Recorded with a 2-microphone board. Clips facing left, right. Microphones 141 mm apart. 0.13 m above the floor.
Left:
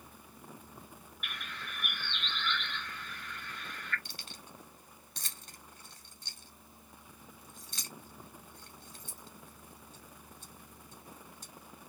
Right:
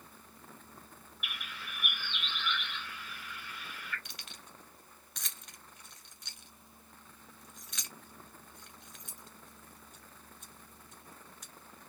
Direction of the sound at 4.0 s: 35° left (ahead or behind).